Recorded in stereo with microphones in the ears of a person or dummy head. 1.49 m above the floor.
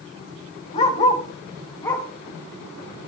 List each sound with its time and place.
0.7 s a dog barking: 45° left (ahead or behind), 3.5 m; by 3.1 s 5° left (ahead or behind), 4.5 m